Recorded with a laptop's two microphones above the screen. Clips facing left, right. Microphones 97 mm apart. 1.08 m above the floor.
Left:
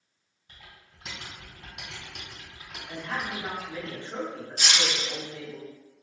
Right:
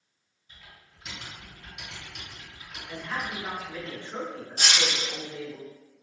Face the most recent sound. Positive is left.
turn(degrees=-50)  # may be behind; listen again after turning